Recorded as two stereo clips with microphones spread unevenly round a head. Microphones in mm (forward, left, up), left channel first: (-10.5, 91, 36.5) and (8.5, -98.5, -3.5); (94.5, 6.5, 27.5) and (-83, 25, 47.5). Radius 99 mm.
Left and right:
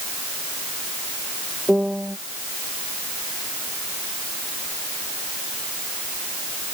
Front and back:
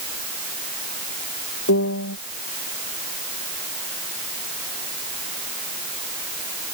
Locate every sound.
1.7 s a piano: 5° left